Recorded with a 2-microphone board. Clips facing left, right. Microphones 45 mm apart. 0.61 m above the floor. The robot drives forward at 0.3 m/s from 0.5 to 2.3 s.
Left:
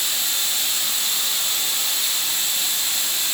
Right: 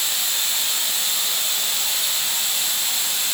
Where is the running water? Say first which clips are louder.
Even; 55° right (ahead or behind), 2 m; by 3.3 s 65° right (ahead or behind), 1.8 m.